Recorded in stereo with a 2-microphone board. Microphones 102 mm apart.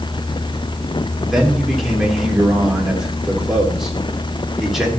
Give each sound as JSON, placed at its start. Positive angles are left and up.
{"t": 1.3, "sound": "a man speaking", "side_deg": -5, "distance_m": 3.0}